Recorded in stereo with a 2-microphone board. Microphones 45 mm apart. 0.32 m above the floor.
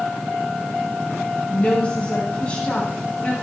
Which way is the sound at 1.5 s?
30° left (ahead or behind).